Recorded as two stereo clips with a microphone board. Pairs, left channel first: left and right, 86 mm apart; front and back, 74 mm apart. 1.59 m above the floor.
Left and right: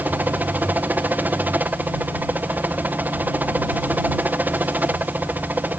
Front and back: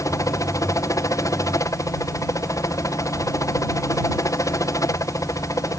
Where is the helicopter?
25° right.